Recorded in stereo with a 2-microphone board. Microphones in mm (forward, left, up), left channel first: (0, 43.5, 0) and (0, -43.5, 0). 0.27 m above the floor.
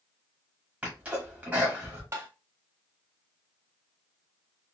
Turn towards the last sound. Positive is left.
turn(degrees=-30)  # may be behind; listen again after turning